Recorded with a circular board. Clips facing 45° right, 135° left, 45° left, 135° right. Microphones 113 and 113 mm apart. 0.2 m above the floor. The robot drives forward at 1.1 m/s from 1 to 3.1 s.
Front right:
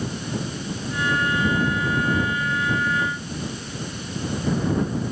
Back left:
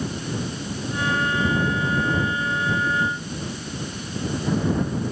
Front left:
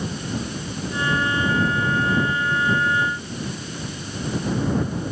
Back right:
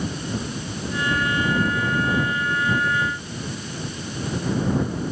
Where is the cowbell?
I don't hear a cowbell.